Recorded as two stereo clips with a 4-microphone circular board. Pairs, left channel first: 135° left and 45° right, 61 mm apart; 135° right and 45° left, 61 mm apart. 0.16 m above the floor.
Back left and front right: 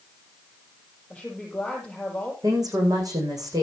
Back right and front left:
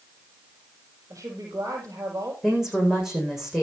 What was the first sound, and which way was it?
A woman speaking, 55° left.